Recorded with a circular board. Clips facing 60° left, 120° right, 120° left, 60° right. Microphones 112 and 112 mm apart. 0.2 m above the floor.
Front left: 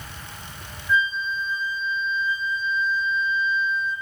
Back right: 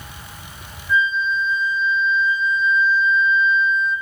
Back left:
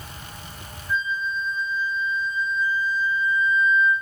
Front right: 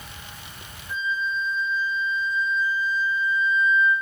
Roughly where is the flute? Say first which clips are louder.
Back right 4 dB, back left 1 dB; right.